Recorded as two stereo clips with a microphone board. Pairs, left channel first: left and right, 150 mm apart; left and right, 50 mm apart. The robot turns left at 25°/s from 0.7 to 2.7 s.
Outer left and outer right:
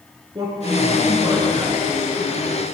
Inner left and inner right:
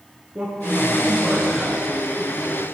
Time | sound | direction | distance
0.3 | a man speaking | 40° right | 1.8 m